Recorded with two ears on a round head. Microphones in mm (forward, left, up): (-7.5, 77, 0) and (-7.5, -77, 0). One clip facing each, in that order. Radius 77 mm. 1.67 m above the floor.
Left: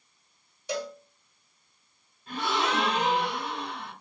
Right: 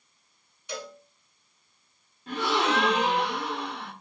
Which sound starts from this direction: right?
A gasp, at 2.3 s.